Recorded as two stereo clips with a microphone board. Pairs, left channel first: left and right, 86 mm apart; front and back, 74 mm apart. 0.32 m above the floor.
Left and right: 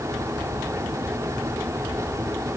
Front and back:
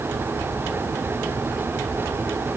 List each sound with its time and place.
Only background noise.